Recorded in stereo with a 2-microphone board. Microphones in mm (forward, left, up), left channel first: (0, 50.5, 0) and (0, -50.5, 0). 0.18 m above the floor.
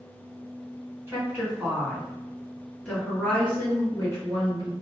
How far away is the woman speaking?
About 1.9 m.